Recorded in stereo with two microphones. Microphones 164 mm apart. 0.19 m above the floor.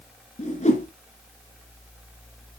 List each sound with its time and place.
0.4 s a whoosh: 45° left (ahead or behind), 1.9 m